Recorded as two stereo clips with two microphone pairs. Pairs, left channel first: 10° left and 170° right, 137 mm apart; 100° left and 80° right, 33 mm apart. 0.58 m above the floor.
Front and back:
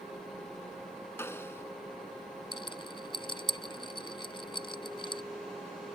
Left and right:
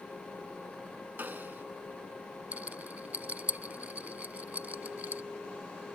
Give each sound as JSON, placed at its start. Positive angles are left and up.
{"t": 1.2, "sound": "a snare drum", "azimuth_deg": -65}
{"t": 2.5, "sound": "a rattle", "azimuth_deg": -45}